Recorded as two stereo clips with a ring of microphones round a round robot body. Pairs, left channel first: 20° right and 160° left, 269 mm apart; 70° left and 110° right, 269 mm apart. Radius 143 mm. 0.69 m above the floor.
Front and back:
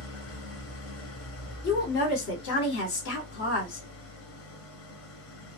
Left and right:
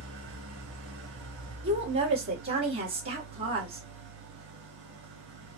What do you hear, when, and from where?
0.0 s an engine running: 65° right, 2.5 m
1.6 s a woman speaking: 60° right, 2 m